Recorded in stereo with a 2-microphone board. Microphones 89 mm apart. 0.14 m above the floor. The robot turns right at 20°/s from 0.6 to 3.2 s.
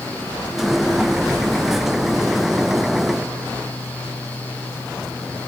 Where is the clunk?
I don't hear a clunk.